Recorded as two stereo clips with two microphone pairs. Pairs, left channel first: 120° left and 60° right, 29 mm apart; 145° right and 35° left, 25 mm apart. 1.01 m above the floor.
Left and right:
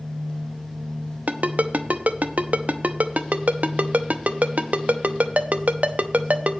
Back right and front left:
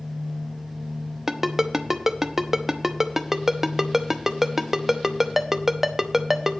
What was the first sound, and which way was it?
A ringtone, 40° right.